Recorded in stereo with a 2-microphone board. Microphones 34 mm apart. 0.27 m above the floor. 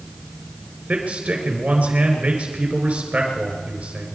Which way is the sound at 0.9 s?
45° right (ahead or behind).